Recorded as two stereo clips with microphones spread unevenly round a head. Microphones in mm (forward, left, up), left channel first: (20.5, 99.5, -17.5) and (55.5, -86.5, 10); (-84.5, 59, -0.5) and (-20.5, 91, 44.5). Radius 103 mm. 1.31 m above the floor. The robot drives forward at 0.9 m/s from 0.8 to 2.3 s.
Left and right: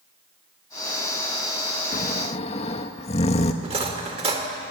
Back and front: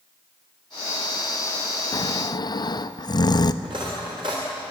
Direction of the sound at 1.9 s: 155° left.